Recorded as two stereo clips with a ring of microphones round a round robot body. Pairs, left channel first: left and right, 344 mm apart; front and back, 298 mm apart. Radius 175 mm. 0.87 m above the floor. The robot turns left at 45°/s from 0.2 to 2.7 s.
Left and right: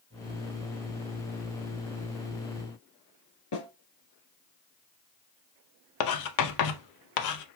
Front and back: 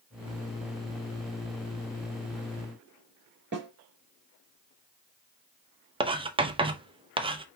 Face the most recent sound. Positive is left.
turn(degrees=110)